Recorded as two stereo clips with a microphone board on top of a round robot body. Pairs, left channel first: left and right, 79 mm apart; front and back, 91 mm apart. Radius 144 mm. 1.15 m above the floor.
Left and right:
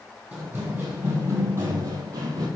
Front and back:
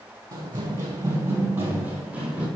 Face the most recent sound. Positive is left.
turn(degrees=-105)